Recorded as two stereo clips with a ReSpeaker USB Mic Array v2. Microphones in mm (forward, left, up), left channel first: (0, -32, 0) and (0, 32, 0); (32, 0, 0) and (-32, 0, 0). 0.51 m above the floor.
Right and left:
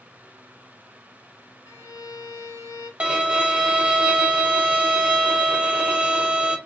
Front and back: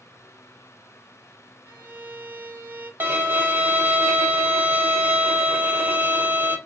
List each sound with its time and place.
1.7 s a violin: 120° right, 1.1 m
3.0 s a violin: 150° left, 0.7 m